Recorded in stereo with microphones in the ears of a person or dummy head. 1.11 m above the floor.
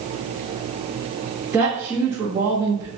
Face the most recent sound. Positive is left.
turn(degrees=-10)  # may be behind; listen again after turning